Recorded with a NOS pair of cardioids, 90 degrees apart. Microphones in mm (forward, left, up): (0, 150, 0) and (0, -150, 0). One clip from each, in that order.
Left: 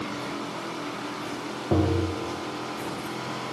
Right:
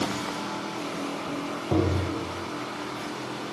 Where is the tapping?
5° left, 0.6 m.